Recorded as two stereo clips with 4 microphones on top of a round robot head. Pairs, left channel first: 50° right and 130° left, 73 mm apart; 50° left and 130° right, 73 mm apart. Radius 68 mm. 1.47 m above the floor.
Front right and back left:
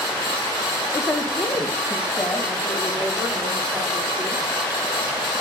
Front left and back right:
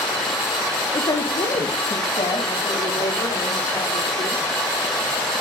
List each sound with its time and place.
0.9 s a woman speaking: 15° left, 1.5 m; by 4.5 s 35° left, 6 m